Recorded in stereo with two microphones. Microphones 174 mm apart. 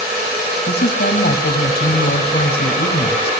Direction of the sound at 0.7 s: 70° left (ahead or behind).